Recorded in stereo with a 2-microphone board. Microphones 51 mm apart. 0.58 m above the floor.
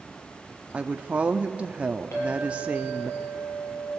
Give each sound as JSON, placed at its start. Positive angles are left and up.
{"t": 0.7, "sound": "a woman speaking", "side_deg": -25, "distance_m": 0.6}
{"t": 2.1, "sound": "a clink", "side_deg": 60, "distance_m": 8.5}